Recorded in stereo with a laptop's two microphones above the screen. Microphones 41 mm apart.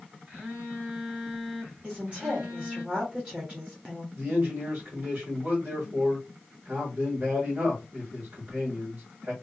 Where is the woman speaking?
30° right (ahead or behind), 1.2 m.